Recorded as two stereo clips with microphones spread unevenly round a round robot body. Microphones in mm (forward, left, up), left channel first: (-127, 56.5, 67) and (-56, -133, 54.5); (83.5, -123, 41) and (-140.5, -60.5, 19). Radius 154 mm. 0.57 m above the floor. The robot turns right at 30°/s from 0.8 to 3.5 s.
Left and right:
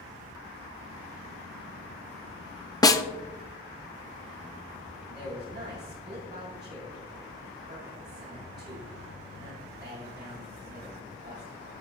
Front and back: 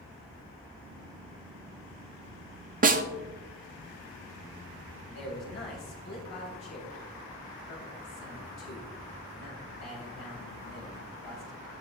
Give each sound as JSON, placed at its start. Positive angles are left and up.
{"t": 2.8, "sound": "a snare drum", "azimuth_deg": 180, "distance_m": 0.8}
{"t": 5.1, "sound": "a man speaking", "azimuth_deg": 5, "distance_m": 3.5}